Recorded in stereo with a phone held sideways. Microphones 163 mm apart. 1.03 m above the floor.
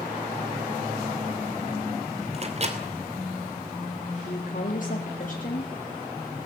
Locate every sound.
2.3 s a microwave: 40° right (ahead or behind), 2.5 m
4.2 s a woman speaking: 55° left (ahead or behind), 1.9 m